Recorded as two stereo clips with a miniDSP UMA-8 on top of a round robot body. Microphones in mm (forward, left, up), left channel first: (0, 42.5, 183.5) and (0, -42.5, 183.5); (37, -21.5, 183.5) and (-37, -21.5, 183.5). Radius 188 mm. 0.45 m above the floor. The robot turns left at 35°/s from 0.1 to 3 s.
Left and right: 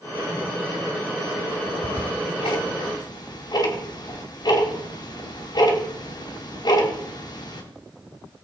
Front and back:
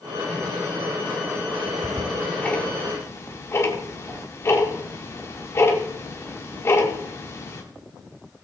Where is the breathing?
No breathing in this recording.